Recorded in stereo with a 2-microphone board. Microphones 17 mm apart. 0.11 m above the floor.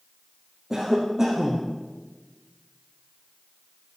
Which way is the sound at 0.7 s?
40° right (ahead or behind).